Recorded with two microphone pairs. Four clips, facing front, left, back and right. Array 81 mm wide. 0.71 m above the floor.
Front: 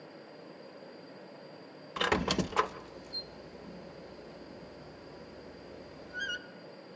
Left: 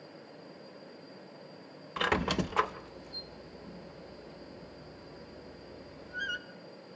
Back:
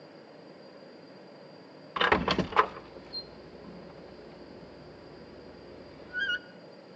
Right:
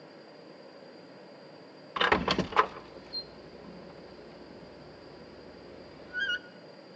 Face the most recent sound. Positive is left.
turn(degrees=-135)